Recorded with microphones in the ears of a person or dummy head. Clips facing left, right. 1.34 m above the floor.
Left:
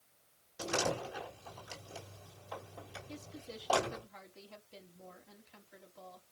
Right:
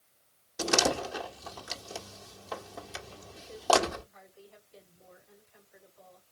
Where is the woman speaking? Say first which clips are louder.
Even; 75° left (ahead or behind), 3.5 m.